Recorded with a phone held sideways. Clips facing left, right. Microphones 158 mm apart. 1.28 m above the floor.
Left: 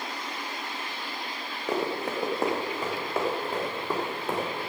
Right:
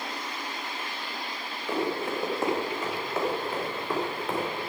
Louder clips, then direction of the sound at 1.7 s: Even; 40° left (ahead or behind).